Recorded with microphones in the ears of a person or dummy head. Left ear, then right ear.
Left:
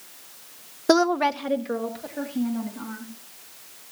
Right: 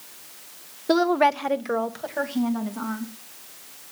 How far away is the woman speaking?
About 0.5 m.